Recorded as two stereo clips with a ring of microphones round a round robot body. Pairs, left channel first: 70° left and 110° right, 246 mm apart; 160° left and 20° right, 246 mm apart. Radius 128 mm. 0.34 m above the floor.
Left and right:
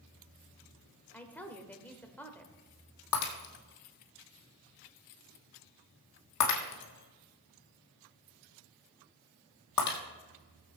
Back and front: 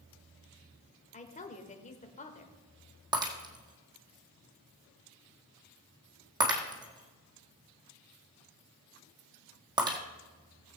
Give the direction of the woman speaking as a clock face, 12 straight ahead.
7 o'clock.